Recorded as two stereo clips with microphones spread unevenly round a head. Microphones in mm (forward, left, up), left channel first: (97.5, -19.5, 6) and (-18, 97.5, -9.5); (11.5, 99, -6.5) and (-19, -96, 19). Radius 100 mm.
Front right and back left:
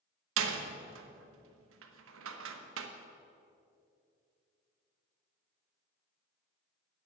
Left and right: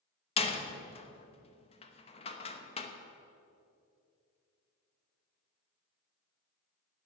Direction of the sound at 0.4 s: 145° left.